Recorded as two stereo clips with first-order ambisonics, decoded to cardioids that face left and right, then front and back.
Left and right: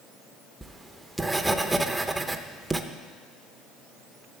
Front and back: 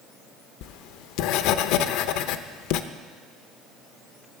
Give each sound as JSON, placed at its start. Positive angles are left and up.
{"t": 0.6, "sound": "writing", "azimuth_deg": -5, "distance_m": 0.6}